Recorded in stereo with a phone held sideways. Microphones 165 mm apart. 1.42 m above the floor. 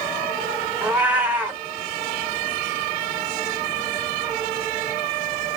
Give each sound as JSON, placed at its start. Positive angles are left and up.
{"t": 0.8, "sound": "a cat meowing", "side_deg": -10, "distance_m": 0.6}